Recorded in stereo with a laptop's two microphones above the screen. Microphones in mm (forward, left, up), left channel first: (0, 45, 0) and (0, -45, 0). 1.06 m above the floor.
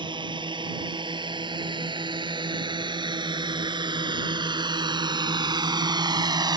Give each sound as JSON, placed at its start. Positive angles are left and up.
{"t": 0.0, "sound": "a drone", "side_deg": -60}